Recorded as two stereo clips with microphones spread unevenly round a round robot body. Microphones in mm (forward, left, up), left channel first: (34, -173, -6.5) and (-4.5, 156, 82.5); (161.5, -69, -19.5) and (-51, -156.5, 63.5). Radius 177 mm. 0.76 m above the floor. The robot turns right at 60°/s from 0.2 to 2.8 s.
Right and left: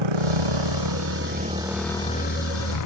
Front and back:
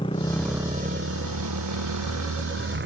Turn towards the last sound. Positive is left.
turn(degrees=-120)